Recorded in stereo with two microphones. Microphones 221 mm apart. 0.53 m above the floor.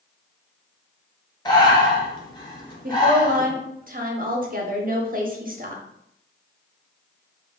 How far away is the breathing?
About 1.1 m.